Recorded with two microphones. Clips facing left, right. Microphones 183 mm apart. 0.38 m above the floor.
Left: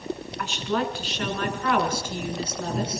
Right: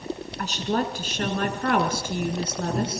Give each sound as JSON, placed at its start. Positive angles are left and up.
{"t": 0.4, "sound": "a woman speaking", "side_deg": -40, "distance_m": 4.0}